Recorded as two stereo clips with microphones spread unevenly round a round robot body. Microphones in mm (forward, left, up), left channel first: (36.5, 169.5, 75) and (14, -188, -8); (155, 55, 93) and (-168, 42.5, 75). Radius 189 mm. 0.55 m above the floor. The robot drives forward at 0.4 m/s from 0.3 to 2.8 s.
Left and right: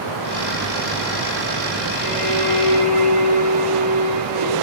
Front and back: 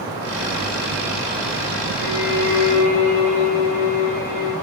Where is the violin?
25° right, 9.5 m.